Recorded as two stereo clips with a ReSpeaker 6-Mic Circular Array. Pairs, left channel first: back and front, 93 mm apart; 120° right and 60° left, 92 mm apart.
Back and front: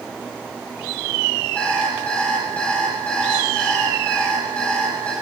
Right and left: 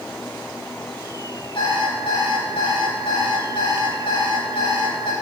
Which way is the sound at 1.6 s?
105° right.